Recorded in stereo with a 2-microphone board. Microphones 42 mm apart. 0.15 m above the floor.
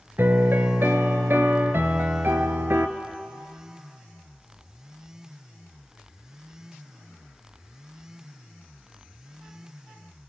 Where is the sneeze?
I don't hear a sneeze.